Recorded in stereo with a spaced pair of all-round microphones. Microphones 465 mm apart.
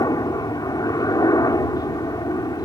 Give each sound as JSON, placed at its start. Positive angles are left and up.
{"t": 0.0, "sound": "a helicopter", "side_deg": 10}